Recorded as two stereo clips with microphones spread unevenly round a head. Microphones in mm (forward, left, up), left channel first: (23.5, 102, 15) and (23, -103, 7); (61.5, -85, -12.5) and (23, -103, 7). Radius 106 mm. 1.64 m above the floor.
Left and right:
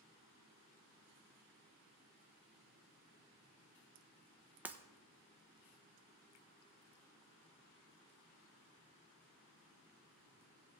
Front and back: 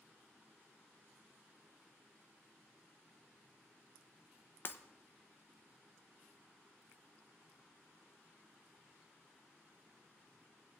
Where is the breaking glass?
10° right, 0.7 m.